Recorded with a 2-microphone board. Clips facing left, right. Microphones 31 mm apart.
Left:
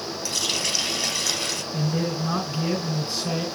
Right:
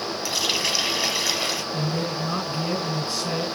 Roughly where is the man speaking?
Centre.